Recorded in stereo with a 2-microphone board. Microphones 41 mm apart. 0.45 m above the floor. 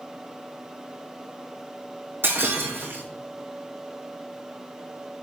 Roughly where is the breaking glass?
Right.